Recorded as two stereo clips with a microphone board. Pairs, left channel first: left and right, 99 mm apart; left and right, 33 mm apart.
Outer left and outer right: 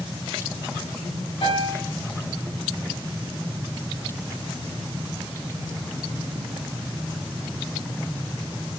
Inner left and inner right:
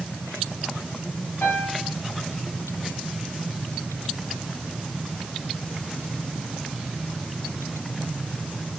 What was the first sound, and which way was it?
A piano, 70° left (ahead or behind).